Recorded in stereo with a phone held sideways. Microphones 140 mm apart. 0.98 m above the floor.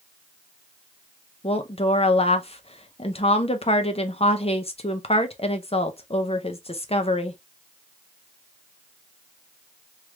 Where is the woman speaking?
45° left (ahead or behind), 0.6 m.